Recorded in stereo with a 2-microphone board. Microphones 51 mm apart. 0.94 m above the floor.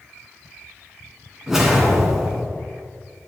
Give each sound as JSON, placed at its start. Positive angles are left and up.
{"t": 1.5, "sound": "a whoosh", "side_deg": -5, "distance_m": 2.5}